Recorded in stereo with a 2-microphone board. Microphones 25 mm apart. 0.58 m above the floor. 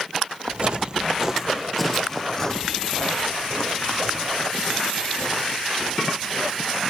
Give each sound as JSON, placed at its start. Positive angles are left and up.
{"t": 0.5, "sound": "footsteps", "side_deg": -45, "distance_m": 1.1}